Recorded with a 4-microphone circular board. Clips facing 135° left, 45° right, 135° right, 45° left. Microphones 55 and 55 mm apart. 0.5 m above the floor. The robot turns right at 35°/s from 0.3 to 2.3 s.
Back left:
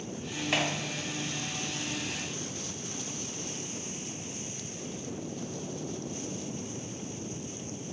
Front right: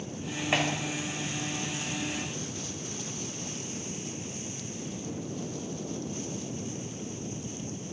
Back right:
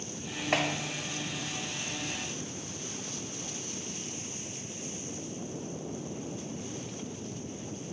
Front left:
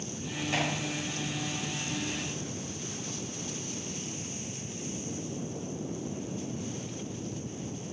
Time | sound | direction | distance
0.5 | a clap | 115° right | 2.5 m